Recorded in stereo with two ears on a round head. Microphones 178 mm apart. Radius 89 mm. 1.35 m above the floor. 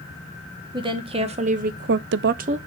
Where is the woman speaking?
20° right (ahead or behind), 1.5 m; by 2.6 s 30° right (ahead or behind), 0.6 m.